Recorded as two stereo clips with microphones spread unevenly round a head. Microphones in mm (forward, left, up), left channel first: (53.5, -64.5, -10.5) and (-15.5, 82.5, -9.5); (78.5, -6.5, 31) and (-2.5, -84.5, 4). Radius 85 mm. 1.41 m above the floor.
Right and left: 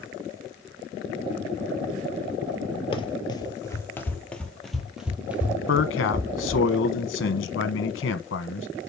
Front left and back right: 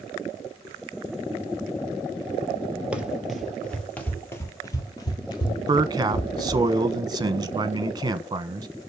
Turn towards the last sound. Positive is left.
turn(degrees=-85)